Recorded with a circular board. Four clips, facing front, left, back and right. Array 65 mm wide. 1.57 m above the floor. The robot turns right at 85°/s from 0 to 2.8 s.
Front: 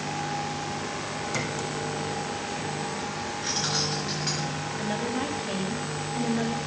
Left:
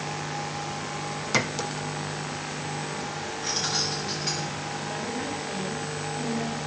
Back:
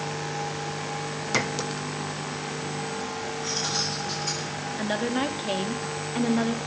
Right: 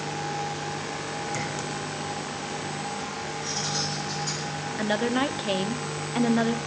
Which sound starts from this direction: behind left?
A clink, at 1.3 s.